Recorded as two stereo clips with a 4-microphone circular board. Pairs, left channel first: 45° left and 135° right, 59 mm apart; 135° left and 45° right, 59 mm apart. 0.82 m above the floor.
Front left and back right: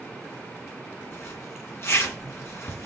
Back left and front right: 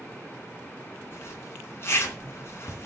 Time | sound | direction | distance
1.1 | a zipper | 85° left | 3.5 m